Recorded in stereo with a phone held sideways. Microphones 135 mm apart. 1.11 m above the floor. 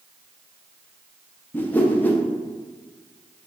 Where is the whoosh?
15° left (ahead or behind), 0.5 m.